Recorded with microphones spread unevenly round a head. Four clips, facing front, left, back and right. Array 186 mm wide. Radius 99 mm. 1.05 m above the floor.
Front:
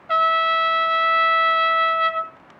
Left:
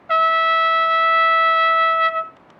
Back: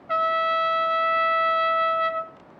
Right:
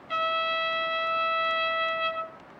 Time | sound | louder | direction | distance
0.1 | a trumpet | left 11 dB, front 4 dB | 70° left | 1.3 m